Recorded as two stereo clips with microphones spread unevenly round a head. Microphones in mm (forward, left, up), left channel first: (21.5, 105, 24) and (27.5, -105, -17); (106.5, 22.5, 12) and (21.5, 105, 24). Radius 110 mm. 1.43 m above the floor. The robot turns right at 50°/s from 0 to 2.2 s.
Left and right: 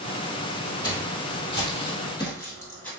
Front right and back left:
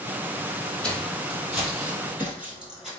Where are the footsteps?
35° left, 2.0 m; by 2.9 s 70° left, 1.5 m.